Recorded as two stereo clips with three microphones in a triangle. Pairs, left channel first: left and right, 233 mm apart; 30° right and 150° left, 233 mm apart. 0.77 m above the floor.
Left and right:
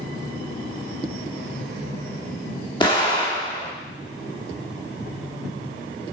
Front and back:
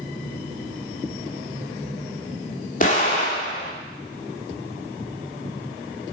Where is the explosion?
20° left, 1.8 m.